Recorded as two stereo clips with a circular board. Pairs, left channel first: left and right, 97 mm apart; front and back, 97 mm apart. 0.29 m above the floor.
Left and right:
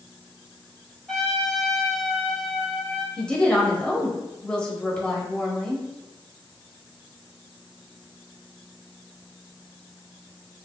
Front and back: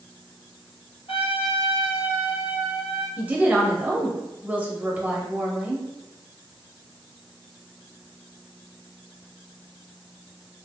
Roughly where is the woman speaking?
Behind left.